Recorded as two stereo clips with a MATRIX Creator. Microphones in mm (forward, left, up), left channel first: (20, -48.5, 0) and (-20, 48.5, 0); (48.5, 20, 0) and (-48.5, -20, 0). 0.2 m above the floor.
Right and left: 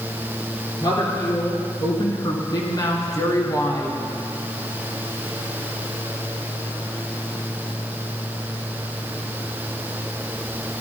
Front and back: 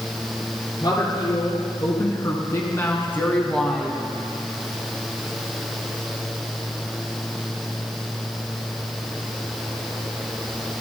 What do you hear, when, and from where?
0.8 s a woman speaking: 25° right, 3 m; by 4.1 s 75° right, 1.4 m